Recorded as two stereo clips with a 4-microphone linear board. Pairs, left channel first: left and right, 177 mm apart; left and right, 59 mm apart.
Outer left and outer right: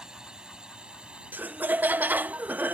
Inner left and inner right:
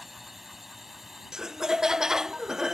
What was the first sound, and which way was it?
A drone, 5° right (ahead or behind).